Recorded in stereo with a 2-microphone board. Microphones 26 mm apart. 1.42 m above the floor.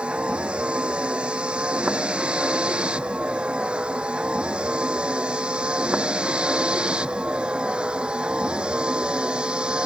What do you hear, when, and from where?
0.0 s a vehicle: 45° right (ahead or behind); by 9.9 s 40° right (ahead or behind)